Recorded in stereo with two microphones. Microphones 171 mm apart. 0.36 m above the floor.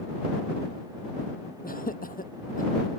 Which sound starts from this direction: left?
Laughter, at 1.6 s.